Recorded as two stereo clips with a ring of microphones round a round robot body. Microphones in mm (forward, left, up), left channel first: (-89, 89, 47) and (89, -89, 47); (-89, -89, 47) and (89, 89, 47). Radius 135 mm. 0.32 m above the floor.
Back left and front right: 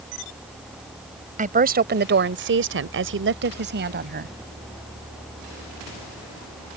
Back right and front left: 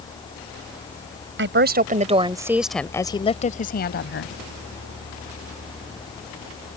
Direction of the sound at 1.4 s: 10° left.